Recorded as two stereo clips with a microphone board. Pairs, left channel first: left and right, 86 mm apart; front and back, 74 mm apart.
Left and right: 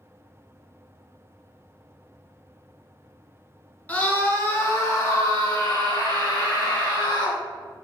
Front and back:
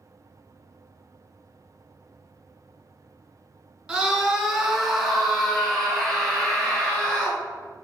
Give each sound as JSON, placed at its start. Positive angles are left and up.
{"t": 3.9, "sound": "a scream", "azimuth_deg": 125, "distance_m": 1.5}